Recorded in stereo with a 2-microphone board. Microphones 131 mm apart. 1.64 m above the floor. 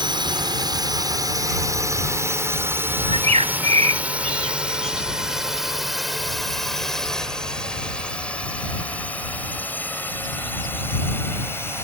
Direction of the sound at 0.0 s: 35° right (ahead or behind).